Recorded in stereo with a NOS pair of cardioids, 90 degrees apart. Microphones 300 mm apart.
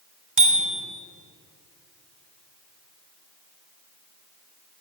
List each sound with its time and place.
0.4 s a bicycle bell: 45° right, 4 m